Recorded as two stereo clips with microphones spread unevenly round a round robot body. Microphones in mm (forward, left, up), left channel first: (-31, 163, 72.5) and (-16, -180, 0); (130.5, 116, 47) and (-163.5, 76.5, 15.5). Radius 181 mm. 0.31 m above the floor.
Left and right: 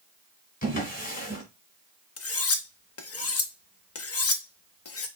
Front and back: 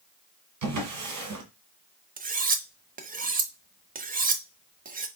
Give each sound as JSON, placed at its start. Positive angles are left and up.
{"t": 0.6, "sound": "a drawer", "azimuth_deg": 165, "distance_m": 1.9}
{"t": 2.2, "sound": "cutlery clinking", "azimuth_deg": 140, "distance_m": 0.8}